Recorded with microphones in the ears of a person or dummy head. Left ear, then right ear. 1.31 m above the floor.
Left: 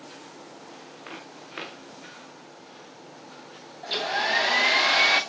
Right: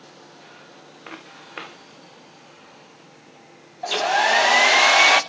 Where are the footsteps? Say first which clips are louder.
Right 3 dB; 20° right (ahead or behind), 4 m.